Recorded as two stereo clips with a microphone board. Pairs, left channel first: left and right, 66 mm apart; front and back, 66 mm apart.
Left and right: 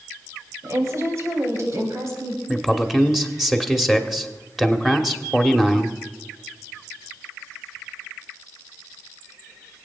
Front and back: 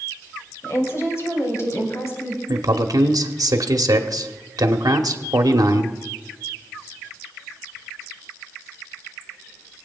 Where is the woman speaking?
45° right, 3 m.